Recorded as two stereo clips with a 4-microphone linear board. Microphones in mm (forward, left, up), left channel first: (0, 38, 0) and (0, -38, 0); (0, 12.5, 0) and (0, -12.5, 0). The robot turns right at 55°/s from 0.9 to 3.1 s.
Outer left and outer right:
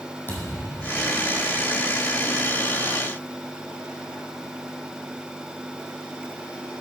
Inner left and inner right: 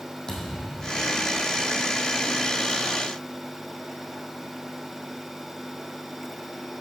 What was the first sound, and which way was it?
A thud, 30° left (ahead or behind).